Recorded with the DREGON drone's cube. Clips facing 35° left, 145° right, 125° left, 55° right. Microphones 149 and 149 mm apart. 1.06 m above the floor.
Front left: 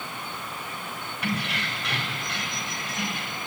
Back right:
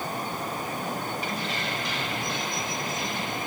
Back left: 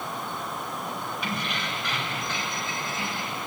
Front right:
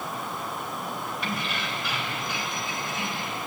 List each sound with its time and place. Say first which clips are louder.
1.2 s keys jangling: front left 1 dB, even; 35° left, 3.5 m; by 3.4 s 10° left, 3.5 m